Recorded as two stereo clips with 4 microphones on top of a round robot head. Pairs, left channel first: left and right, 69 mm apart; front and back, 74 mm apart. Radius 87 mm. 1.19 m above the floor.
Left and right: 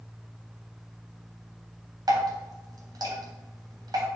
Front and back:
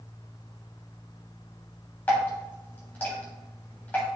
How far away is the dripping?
About 3 m.